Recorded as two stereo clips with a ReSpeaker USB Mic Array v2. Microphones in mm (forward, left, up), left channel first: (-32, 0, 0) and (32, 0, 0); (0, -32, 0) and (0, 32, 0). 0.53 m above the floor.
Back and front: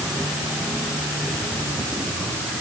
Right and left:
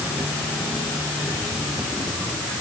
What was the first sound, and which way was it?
Only background noise.